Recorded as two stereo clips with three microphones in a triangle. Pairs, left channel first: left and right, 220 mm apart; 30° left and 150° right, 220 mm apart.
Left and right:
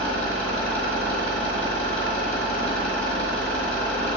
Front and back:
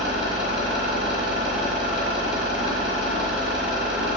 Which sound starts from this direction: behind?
An engine running, at 0.0 s.